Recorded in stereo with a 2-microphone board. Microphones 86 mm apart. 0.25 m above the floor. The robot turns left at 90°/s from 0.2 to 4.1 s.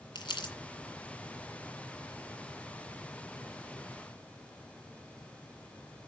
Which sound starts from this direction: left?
Crumpling, at 0.1 s.